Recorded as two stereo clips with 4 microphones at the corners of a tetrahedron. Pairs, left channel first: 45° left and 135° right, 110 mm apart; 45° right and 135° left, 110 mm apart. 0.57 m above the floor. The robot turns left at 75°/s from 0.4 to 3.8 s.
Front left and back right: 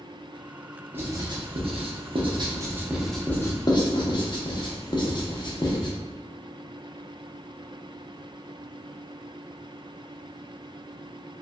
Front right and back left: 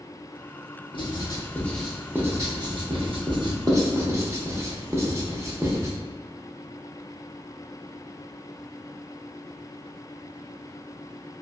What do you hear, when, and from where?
0.9 s writing: 65° right, 0.5 m; by 5.9 s 80° left, 0.5 m